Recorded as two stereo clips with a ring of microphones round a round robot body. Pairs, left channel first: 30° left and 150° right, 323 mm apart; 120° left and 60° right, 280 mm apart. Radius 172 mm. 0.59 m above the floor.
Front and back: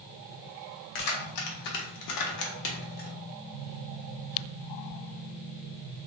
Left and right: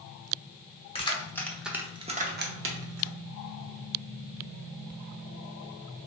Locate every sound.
0.9 s keys jangling: 50° left, 1.2 m; by 3.1 s 35° right, 1.1 m